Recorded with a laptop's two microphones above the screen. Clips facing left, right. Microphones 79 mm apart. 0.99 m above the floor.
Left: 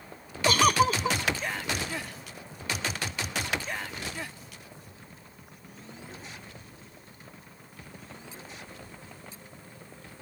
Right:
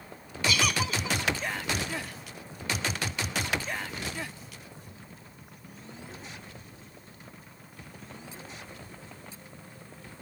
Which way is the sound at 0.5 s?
45° left (ahead or behind).